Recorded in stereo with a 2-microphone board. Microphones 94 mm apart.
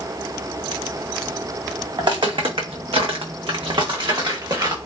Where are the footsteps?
50° right (ahead or behind), 0.8 m; by 4.8 s 40° right (ahead or behind), 1.3 m.